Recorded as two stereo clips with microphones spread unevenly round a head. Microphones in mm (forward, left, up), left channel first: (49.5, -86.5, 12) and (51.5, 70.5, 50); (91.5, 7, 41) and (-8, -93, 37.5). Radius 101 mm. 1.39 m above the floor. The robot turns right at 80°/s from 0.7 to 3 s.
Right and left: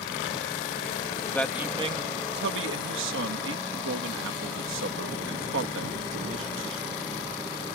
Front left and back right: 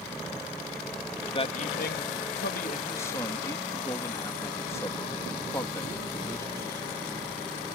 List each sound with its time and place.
1.3 s a man speaking: 10° right; by 6.8 s 120° left